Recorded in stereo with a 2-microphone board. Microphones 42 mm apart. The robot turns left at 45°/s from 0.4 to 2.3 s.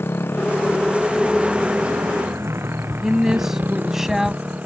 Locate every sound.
0.0 s a motorcycle: 70° left (ahead or behind); by 4.7 s 35° right (ahead or behind)
3.0 s a woman speaking: 10° right (ahead or behind)